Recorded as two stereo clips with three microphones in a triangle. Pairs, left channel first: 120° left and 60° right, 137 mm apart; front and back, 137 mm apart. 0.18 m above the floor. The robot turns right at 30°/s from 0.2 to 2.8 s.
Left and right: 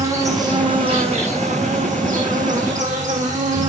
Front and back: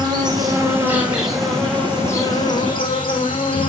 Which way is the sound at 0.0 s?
125° right.